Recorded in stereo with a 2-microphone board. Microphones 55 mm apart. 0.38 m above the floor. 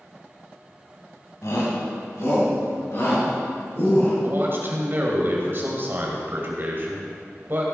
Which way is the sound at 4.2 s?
45° right (ahead or behind).